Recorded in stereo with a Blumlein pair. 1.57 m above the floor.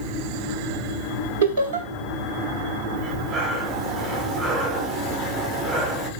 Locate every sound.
1.4 s laughter: 65° right, 0.8 m
3.0 s breathing: 15° right, 1.3 m